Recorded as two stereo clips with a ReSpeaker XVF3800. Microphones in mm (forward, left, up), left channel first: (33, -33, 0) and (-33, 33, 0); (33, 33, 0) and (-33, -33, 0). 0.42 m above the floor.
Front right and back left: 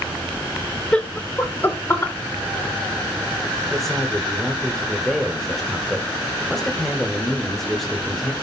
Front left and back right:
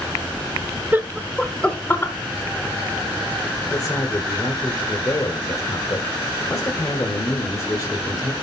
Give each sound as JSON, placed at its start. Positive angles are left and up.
{"t": 0.9, "sound": "laughter", "azimuth_deg": -105, "distance_m": 0.9}
{"t": 3.7, "sound": "a man speaking", "azimuth_deg": 40, "distance_m": 1.2}